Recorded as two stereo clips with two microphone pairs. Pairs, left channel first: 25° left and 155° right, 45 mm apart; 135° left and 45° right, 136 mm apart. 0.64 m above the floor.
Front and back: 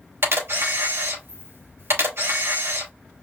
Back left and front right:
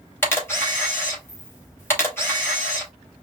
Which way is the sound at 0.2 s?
155° right.